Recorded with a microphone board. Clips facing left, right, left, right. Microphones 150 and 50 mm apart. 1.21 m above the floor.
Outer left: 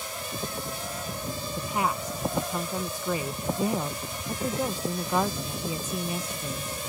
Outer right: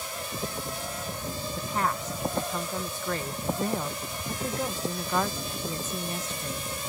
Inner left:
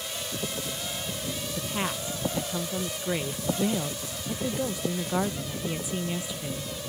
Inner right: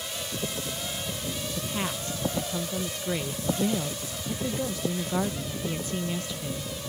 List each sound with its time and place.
1.6 s a woman speaking: 10° left (ahead or behind)